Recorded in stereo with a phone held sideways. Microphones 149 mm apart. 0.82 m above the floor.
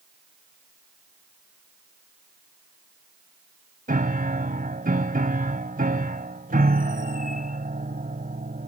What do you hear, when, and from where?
3.9 s a piano: 80° right